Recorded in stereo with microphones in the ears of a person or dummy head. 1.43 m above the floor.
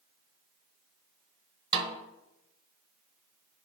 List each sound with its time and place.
1.7 s a snare drum: 25° right (ahead or behind), 0.8 m